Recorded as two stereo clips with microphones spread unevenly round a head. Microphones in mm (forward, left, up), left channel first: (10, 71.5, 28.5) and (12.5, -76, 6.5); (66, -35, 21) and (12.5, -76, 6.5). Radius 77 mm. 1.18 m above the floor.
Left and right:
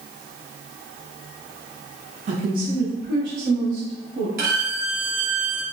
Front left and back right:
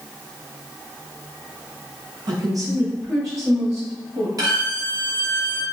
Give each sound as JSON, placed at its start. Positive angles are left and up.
{"t": 2.3, "sound": "a woman speaking", "azimuth_deg": -125, "distance_m": 0.8}
{"t": 4.4, "sound": "a violin", "azimuth_deg": -115, "distance_m": 1.3}